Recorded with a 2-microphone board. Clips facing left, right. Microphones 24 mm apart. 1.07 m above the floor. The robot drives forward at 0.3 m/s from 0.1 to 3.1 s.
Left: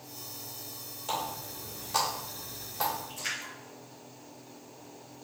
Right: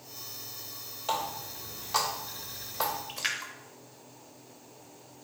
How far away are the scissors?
I don't hear scissors.